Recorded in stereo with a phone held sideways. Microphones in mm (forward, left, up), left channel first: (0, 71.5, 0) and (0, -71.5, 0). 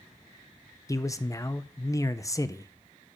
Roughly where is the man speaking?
Left.